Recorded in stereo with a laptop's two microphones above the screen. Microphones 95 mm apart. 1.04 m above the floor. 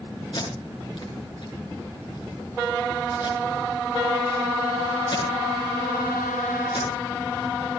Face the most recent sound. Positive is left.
turn(degrees=55)  # may be behind; listen again after turning